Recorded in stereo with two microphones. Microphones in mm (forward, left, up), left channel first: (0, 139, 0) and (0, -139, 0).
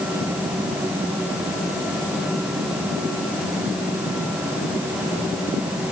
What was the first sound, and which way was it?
Only background noise.